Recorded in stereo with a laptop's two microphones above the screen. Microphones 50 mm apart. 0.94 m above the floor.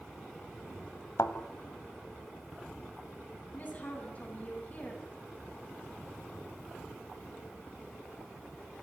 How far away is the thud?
About 1.8 m.